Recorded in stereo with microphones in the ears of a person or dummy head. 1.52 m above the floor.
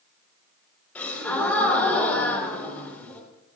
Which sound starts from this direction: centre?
A gasp, at 0.9 s.